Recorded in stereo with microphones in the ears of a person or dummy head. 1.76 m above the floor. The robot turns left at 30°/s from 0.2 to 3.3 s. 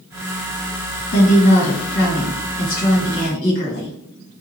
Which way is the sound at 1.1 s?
110° left.